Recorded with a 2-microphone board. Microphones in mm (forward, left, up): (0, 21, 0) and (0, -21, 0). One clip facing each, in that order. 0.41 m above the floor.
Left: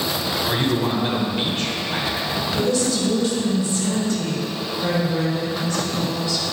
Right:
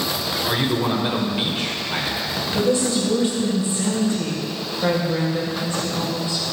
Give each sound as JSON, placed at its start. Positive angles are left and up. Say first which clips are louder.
{"t": 0.5, "sound": "a man speaking", "louder": "right 1 dB", "side_deg": -10, "distance_m": 1.4}
{"t": 2.5, "sound": "a woman speaking", "louder": "right 2 dB", "side_deg": -25, "distance_m": 2.0}